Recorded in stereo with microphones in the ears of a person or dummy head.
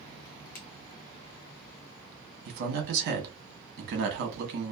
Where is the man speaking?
60° right (ahead or behind), 1.1 m.